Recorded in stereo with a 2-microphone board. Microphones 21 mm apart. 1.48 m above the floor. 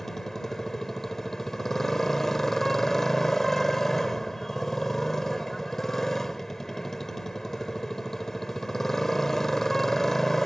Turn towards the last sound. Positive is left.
turn(degrees=15)  # may be behind; listen again after turning